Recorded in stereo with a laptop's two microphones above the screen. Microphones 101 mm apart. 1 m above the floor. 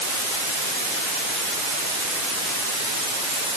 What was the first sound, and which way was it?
Only background noise.